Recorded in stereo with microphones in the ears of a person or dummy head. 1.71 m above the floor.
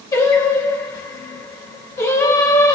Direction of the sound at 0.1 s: 20° left (ahead or behind).